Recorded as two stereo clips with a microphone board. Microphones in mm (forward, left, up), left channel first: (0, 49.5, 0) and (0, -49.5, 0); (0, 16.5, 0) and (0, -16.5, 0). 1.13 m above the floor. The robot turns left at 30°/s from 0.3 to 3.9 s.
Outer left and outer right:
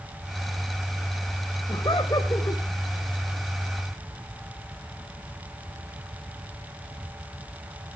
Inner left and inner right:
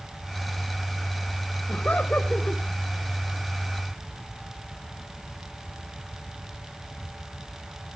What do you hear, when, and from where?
1.7 s laughter: 50° left (ahead or behind), 4.5 m; by 2.6 s 20° left (ahead or behind), 4.5 m